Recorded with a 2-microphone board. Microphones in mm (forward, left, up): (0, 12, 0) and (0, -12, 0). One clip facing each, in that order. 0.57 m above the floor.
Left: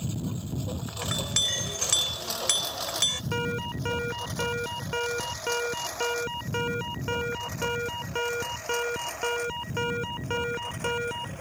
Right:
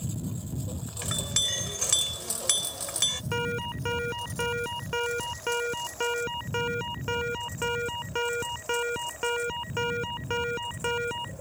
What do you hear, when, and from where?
0.0 s a lawn mower: 30° left (ahead or behind); by 11.4 s 65° left (ahead or behind)
1.0 s a clink: 10° left (ahead or behind)
3.3 s an alarm: centre (ahead or behind)